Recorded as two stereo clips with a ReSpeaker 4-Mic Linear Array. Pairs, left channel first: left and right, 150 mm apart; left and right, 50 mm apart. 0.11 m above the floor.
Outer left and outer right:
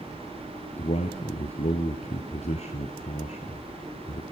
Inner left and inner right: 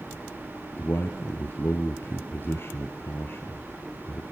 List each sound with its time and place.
0.8 s a man speaking: 50° left (ahead or behind), 1.7 m